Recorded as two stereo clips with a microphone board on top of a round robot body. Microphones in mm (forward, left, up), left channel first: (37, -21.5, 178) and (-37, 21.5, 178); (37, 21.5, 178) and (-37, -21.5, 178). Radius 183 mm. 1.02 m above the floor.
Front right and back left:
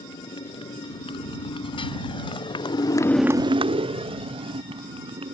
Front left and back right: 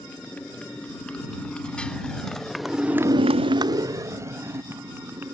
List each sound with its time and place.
0.0 s a motorcycle: 45° right; by 5.3 s 145° left